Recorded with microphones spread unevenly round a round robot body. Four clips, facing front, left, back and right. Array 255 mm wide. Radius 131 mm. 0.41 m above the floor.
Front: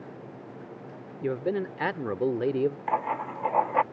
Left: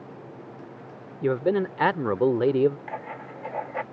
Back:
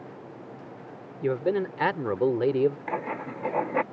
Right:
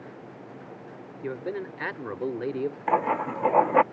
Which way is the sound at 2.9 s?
110° right.